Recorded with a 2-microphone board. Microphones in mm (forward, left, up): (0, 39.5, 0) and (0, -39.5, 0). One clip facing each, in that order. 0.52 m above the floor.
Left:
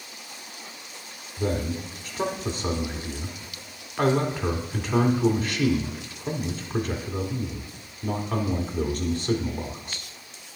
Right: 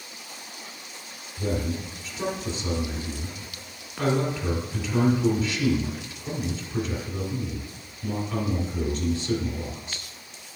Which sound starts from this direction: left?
A man speaking, at 1.4 s.